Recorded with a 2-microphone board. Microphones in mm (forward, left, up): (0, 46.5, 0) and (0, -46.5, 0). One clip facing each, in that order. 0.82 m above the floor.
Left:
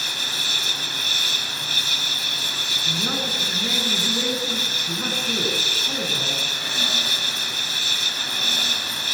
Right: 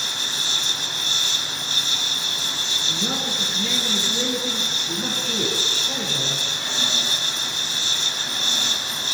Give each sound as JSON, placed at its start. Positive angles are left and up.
{"t": 0.0, "sound": "an insect", "side_deg": -25, "distance_m": 9.5}
{"t": 2.9, "sound": "a man speaking", "side_deg": 35, "distance_m": 10.0}